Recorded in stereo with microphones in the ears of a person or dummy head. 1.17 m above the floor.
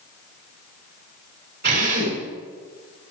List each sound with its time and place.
1.6 s a drill: 55° right (ahead or behind), 7.5 m